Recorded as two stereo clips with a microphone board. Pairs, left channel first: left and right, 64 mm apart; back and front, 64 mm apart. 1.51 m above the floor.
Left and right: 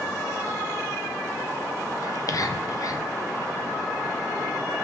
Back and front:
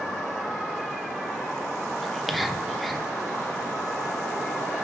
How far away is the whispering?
About 0.5 m.